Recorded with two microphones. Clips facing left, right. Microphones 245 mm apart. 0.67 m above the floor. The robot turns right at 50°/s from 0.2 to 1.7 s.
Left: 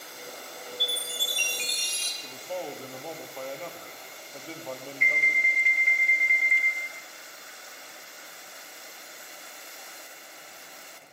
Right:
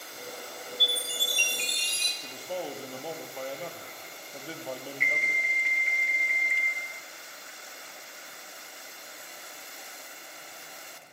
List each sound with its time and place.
0.8 s a chime: 155° right, 1.5 m; by 2.1 s 110° right, 1.5 m
2.2 s a man speaking: 5° right (ahead or behind), 1.4 m
5.0 s an alarm: 20° right (ahead or behind), 2 m